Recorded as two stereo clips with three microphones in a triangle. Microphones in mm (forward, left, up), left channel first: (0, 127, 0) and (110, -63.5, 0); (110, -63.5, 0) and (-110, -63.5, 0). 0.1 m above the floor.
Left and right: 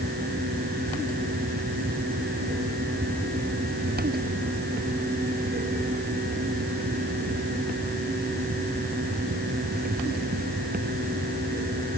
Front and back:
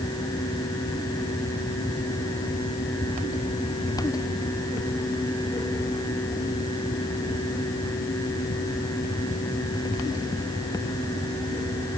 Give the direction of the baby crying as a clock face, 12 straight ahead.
I don't hear a baby crying.